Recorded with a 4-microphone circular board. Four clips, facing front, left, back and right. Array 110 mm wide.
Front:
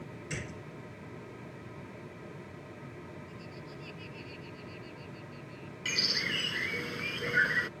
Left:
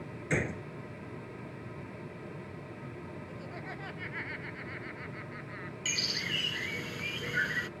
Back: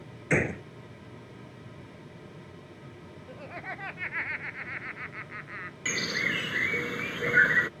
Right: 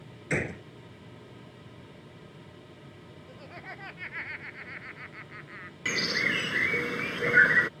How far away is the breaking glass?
No breaking glass in this recording.